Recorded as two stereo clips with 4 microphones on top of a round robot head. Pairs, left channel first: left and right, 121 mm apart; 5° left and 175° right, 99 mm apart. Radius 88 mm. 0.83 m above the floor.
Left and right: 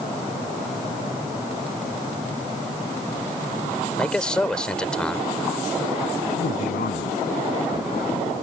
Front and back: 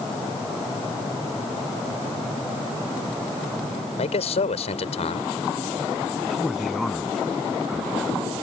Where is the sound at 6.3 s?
95° left.